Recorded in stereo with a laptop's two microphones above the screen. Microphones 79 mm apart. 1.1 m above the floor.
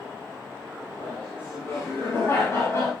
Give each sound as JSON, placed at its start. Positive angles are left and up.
{"t": 1.0, "sound": "laughter", "side_deg": 25, "distance_m": 6.5}